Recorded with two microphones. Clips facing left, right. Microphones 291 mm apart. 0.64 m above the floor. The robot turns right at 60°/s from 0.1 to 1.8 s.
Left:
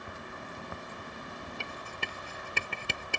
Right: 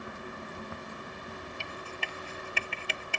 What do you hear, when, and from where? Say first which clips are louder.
1.6 s writing: right 1 dB; 60° left (ahead or behind); by 3.2 s 50° left (ahead or behind)